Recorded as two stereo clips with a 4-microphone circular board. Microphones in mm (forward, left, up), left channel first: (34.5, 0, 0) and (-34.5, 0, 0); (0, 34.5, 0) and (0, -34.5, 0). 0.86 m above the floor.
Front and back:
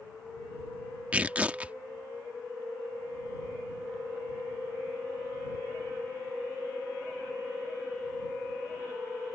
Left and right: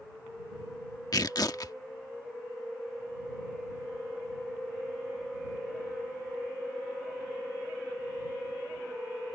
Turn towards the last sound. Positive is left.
turn(degrees=110)